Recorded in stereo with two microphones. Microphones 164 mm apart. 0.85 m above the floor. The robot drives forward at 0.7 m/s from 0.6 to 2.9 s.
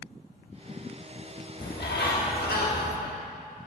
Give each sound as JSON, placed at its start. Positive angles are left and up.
{"t": 1.6, "sound": "a bird", "side_deg": 75, "distance_m": 1.2}